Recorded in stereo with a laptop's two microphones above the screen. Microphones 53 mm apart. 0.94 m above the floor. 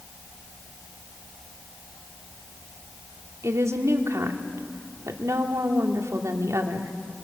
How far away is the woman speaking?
About 2 m.